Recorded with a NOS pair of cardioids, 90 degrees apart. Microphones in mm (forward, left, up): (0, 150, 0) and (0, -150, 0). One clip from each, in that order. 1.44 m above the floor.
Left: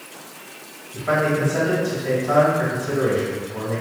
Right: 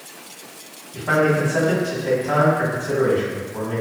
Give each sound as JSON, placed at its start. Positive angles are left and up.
{"t": 0.9, "sound": "a man speaking", "azimuth_deg": 10, "distance_m": 1.3}